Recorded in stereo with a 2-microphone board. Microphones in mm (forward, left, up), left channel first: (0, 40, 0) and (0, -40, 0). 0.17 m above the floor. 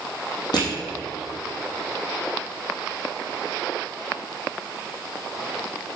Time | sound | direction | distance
0.5 | crushing | 65° left (ahead or behind) | 3.5 m